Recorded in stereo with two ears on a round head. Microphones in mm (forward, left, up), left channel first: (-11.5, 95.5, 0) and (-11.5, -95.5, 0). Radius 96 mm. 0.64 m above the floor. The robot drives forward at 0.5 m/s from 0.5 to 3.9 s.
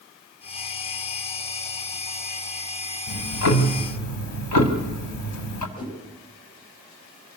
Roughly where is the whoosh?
Left.